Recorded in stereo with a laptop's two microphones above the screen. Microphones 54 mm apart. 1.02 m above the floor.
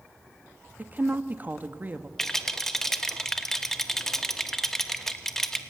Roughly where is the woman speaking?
Right.